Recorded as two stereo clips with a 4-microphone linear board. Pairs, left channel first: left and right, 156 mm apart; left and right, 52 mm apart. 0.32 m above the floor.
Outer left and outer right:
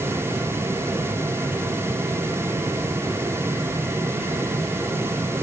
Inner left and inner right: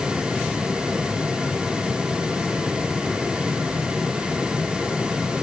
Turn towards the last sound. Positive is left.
No sound to turn to.